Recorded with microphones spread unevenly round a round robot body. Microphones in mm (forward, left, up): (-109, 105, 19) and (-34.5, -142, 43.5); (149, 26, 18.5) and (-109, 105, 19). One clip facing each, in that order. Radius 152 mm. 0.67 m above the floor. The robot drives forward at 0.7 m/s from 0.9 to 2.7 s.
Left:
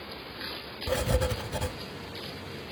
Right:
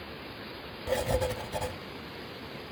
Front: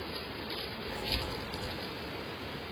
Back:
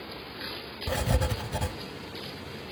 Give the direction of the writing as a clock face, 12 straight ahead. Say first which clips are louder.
Even, back 10 dB; 6 o'clock.